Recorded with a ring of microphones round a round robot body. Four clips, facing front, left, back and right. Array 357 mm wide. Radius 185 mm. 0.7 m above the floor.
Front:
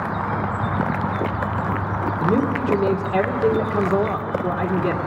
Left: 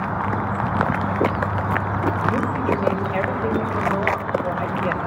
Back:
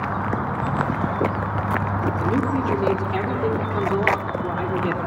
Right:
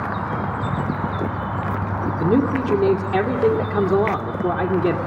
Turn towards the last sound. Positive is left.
turn(degrees=-85)